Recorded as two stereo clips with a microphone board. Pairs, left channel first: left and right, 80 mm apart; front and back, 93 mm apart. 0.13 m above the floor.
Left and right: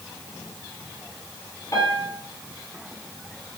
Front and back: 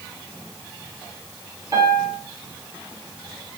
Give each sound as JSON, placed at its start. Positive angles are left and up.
{"t": 1.7, "sound": "a piano", "azimuth_deg": 130, "distance_m": 0.9}